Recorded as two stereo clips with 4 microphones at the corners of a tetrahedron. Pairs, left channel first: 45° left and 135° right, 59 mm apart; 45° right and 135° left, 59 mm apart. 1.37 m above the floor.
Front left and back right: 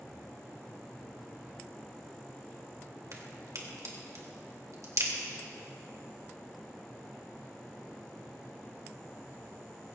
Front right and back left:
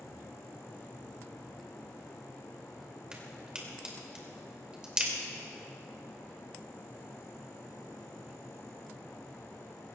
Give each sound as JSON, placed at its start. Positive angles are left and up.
{"t": 3.1, "sound": "a crack", "azimuth_deg": -150, "distance_m": 2.5}